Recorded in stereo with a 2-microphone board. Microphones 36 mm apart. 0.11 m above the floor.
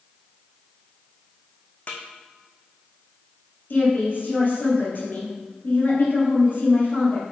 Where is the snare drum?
40° left (ahead or behind), 1.3 m.